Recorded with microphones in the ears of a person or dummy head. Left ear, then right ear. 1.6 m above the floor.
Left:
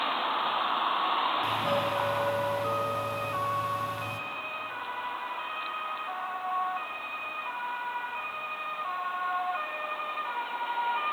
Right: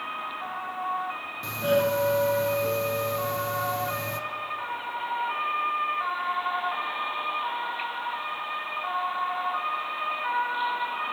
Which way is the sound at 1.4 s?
45° right (ahead or behind).